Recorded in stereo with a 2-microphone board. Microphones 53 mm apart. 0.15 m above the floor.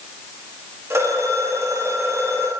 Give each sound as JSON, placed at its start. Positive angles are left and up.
{"t": 0.9, "sound": "a phone ringing", "side_deg": -60, "distance_m": 8.0}